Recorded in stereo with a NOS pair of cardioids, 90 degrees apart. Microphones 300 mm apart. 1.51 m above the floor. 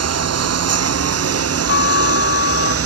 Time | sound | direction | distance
0.0 | a lawn mower | 55° right | ?
1.7 | a trumpet | 45° left | ?